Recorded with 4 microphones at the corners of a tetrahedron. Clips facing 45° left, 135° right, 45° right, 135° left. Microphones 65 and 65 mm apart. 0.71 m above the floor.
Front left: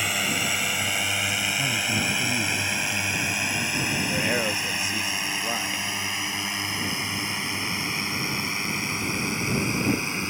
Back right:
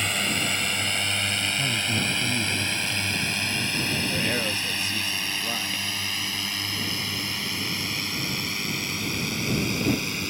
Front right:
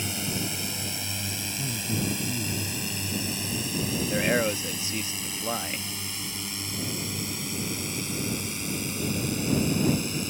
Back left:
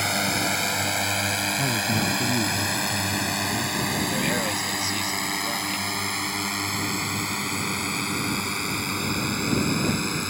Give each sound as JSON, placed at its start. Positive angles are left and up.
{"t": 0.0, "sound": "a drone", "azimuth_deg": 130}
{"t": 1.6, "sound": "a man speaking", "azimuth_deg": 130}
{"t": 4.1, "sound": "a man speaking", "azimuth_deg": -10}